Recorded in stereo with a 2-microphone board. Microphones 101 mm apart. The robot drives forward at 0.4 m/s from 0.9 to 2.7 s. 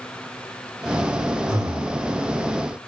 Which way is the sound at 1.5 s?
30° right (ahead or behind).